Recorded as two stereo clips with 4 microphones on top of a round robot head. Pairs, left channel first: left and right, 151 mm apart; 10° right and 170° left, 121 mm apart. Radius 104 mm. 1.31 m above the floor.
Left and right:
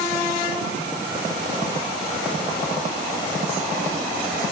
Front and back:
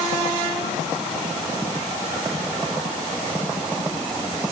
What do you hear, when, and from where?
Only background noise.